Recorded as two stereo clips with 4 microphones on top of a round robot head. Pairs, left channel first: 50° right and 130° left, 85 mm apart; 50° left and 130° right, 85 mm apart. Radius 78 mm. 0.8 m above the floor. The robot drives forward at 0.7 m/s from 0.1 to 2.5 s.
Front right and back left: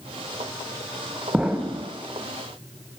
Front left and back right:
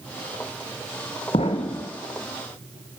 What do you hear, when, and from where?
1.3 s an explosion: 50° left, 0.7 m; by 1.9 s 110° left, 0.7 m